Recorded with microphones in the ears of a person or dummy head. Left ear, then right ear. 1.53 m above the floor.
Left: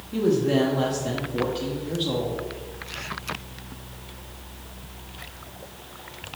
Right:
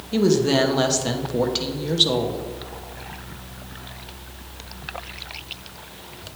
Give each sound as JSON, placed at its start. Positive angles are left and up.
{"t": 0.1, "sound": "a woman speaking", "side_deg": -45, "distance_m": 1.0}